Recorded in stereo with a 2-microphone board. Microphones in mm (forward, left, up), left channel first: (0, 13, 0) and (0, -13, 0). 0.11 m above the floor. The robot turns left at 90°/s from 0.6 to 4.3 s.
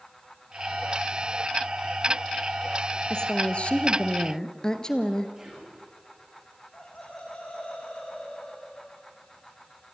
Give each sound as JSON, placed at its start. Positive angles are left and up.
{"t": 3.1, "sound": "a woman speaking", "azimuth_deg": 145, "distance_m": 1.8}
{"t": 5.4, "sound": "whispering", "side_deg": -20, "distance_m": 7.0}
{"t": 6.7, "sound": "laughter", "side_deg": 60, "distance_m": 5.5}